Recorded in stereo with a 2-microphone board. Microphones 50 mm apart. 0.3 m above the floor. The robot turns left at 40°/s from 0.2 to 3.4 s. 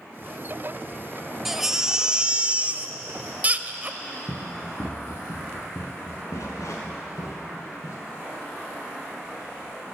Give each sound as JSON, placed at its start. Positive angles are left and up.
{"t": 1.4, "sound": "a baby crying", "azimuth_deg": -15, "distance_m": 0.5}
{"t": 4.3, "sound": "running footsteps", "side_deg": 35, "distance_m": 2.5}